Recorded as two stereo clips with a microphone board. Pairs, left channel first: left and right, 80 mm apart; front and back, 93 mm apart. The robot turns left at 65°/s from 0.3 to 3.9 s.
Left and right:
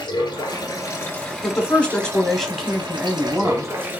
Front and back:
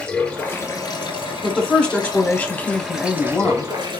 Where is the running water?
80° left, 1.4 m; by 4.0 s 155° right, 1.4 m.